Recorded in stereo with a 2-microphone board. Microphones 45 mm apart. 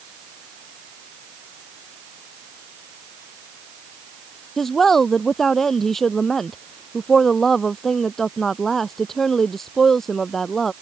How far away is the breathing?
No breathing in this recording.